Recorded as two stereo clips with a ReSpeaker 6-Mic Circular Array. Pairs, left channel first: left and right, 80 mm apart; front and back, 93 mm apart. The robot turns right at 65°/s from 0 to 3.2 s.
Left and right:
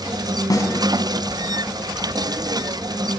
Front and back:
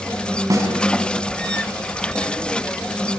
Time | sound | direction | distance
0.5 | a snare drum | 125° left | 4.5 m